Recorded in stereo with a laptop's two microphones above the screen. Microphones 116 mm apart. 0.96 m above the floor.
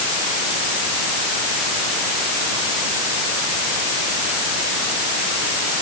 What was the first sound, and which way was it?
Only background noise.